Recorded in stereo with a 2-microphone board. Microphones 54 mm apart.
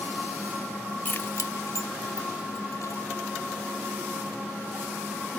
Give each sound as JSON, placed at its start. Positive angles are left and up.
{"t": 1.1, "sound": "keys jangling", "side_deg": 30, "distance_m": 0.5}